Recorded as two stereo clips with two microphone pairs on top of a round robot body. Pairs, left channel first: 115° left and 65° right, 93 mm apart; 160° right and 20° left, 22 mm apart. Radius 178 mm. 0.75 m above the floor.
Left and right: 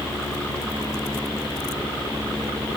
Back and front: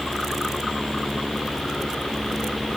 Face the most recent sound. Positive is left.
No sound to turn to.